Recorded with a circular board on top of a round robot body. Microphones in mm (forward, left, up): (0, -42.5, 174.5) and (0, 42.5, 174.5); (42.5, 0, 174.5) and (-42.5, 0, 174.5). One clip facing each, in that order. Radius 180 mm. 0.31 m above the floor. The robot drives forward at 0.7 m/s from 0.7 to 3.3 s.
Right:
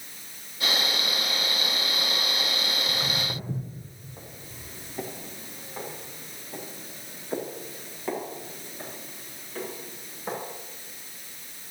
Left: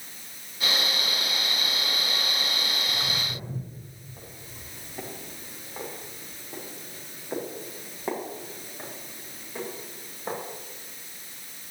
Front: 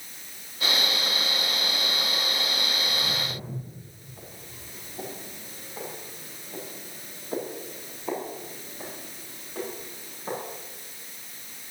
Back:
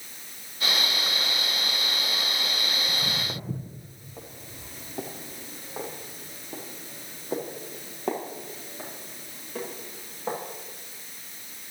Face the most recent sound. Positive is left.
turn(degrees=160)